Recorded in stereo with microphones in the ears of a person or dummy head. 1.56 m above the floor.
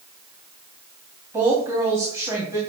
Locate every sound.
1.3 s a woman speaking: 15° right (ahead or behind), 3 m